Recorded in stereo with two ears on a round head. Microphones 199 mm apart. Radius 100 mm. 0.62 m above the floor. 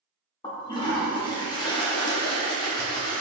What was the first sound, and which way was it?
A toilet flushing, 20° left (ahead or behind).